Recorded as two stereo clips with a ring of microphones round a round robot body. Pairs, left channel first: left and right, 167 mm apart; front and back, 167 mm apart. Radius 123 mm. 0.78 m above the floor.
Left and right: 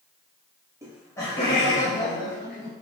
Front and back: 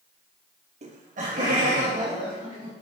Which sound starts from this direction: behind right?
Laughter, at 0.8 s.